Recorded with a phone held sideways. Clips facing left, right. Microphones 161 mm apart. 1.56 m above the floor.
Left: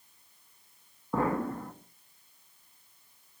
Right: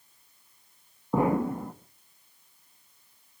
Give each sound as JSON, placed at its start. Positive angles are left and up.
{"t": 1.1, "sound": "an explosion", "side_deg": -15, "distance_m": 1.9}